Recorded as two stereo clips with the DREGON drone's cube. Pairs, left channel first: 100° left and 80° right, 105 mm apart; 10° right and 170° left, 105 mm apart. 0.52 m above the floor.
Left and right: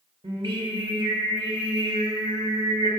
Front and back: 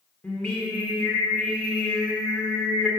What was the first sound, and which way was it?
Singing, 90° right.